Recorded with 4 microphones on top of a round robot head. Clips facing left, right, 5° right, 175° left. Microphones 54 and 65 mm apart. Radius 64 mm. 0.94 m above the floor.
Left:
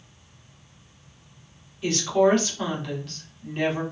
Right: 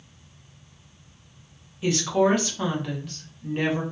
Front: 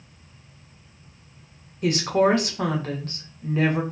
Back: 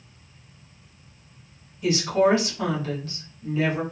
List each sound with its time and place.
1.8 s a woman speaking: 10° right, 0.9 m